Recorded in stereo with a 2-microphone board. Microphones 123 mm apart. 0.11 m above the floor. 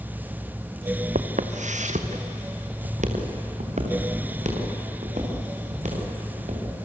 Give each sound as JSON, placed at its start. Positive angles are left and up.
{"t": 1.1, "sound": "footsteps", "side_deg": -80, "distance_m": 1.6}